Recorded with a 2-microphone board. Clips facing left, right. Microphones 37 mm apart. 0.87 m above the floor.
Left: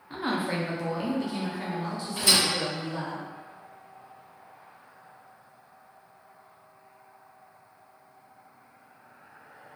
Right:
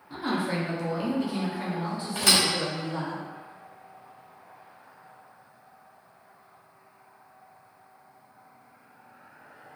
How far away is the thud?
About 1.2 m.